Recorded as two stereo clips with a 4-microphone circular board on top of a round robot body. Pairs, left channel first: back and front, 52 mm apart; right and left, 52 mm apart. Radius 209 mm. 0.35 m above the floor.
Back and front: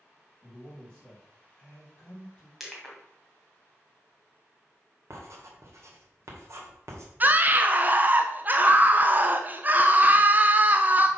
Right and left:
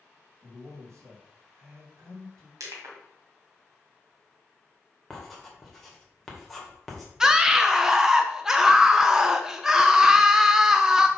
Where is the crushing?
90° left, 2 m.